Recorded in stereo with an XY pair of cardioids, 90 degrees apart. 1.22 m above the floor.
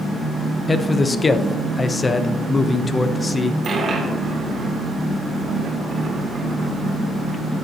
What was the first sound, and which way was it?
A man speaking, 30° left.